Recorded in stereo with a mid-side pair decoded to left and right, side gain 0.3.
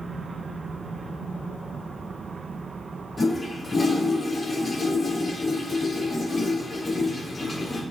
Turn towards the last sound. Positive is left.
turn(degrees=40)